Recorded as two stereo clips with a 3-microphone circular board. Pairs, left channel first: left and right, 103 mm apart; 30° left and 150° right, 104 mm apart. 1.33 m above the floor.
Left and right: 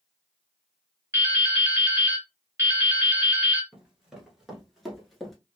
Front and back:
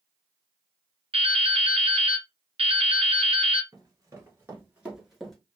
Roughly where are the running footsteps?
Behind.